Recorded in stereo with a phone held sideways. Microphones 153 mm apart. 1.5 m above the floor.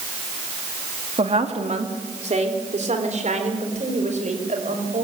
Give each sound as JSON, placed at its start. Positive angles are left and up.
{"t": 1.2, "sound": "a woman speaking", "side_deg": -45, "distance_m": 2.0}